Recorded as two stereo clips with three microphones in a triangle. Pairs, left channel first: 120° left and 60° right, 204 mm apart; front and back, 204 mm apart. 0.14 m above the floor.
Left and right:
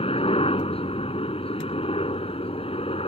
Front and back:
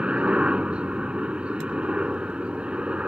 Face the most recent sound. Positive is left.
turn(degrees=100)